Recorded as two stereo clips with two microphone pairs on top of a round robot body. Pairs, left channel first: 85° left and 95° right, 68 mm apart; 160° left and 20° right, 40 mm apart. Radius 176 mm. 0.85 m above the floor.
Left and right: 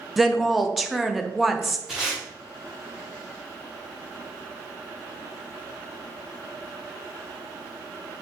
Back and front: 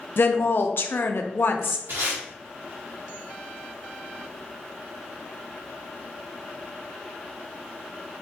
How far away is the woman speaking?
About 0.8 m.